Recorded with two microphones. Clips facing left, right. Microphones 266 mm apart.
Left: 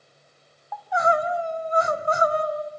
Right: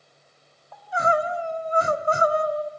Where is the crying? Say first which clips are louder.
Left 1 dB; 35° right (ahead or behind), 1.8 m.